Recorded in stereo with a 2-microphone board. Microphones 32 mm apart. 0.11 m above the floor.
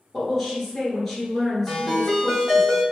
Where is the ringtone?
10° left (ahead or behind), 1.5 m.